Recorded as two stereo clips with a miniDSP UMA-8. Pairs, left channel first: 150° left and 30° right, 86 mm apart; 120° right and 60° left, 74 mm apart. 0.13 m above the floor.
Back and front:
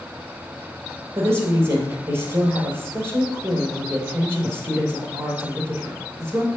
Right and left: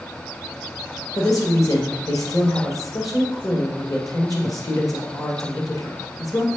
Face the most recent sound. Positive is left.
turn(degrees=-90)